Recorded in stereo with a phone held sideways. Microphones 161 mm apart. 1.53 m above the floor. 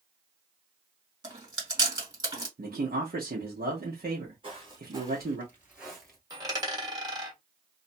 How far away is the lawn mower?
No lawn mower in this recording.